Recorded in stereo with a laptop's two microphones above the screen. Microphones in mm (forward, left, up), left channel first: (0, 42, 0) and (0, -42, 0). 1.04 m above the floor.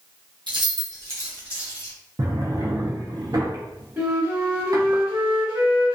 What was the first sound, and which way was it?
Keys jangling, 70° right (ahead or behind).